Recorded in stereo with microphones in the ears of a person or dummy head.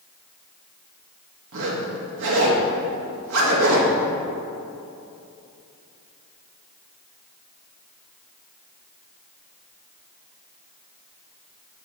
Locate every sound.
1.5 s a zipper: 75° right (ahead or behind), 1.4 m